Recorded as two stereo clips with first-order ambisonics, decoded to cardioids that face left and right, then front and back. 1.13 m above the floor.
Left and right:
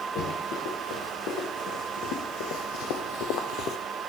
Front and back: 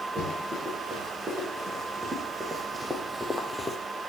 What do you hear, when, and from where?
0.1 s running footsteps: 110° left, 6 m; by 3.8 s 70° left, 1.4 m